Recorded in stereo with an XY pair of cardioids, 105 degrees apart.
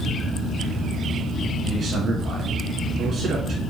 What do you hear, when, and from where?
1.6 s a man speaking: 55° right, 1.8 m